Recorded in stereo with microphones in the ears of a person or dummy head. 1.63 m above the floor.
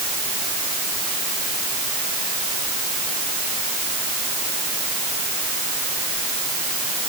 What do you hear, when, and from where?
Only background noise.